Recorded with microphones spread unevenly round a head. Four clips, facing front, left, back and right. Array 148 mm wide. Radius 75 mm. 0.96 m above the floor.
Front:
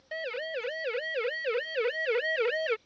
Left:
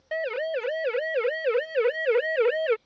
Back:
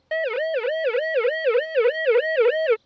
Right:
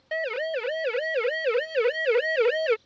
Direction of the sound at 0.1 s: Straight behind.